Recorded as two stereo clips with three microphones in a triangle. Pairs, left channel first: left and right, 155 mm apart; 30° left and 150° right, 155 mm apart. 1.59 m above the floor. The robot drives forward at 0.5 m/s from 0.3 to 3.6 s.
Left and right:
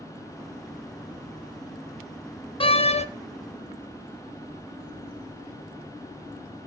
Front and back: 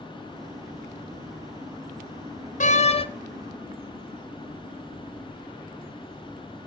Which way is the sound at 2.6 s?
45° left.